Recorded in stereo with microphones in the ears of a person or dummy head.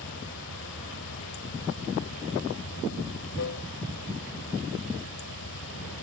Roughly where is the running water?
Left.